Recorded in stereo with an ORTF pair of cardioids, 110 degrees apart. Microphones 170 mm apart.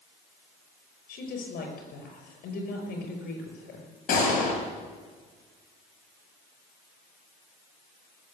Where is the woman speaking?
60° left, 6.5 m.